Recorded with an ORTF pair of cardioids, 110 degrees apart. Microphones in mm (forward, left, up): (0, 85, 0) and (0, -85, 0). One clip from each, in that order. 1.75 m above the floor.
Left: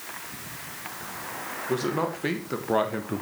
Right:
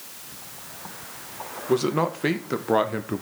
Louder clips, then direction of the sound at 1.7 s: Right 5 dB; 25° right.